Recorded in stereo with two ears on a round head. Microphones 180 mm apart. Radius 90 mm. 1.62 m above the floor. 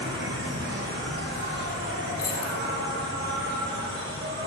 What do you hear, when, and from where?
0.0 s an insect: 55° right (ahead or behind), 2 m
2.2 s keys jangling: 20° left (ahead or behind), 2 m